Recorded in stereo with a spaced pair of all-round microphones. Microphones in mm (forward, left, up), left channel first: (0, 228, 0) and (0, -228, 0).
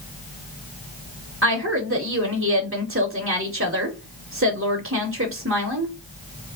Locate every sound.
1.4 s a woman speaking: 30° right (ahead or behind), 0.8 m